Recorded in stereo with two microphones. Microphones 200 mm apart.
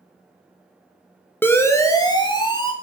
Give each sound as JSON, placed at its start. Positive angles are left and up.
{"t": 1.4, "sound": "a siren", "side_deg": 10, "distance_m": 2.5}